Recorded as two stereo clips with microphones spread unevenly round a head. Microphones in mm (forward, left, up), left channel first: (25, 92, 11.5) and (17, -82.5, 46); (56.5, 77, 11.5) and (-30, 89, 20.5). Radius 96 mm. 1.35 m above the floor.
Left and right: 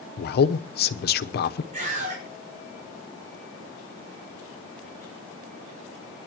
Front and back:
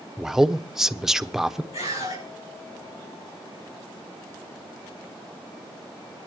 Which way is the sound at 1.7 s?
40° right.